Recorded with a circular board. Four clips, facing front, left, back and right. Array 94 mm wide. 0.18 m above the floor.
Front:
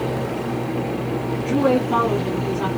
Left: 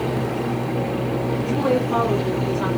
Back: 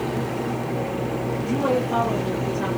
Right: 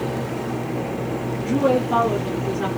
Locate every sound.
1.4 s a woman speaking: 15° right, 2.5 m; by 2.7 s 40° left, 1.8 m